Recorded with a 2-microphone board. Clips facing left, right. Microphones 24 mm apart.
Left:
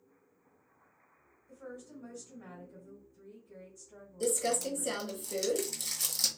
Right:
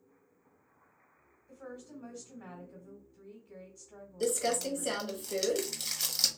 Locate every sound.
1.5 s a woman speaking: 35° right (ahead or behind), 1.7 m
4.2 s crumpling: 25° right (ahead or behind), 0.9 m